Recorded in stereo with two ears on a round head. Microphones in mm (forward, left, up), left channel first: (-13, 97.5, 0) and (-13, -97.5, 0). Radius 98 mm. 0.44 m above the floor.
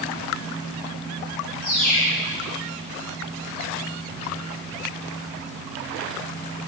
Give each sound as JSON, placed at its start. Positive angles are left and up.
{"t": 1.6, "sound": "a bird", "side_deg": 40, "distance_m": 2.0}